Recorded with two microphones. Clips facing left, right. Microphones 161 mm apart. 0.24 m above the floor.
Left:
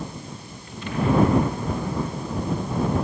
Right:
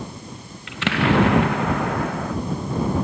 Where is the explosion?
85° right.